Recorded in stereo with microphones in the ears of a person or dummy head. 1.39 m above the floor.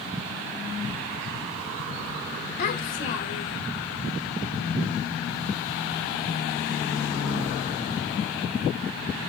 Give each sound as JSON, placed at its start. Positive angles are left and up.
{"t": 2.6, "sound": "a child speaking", "side_deg": 45, "distance_m": 0.9}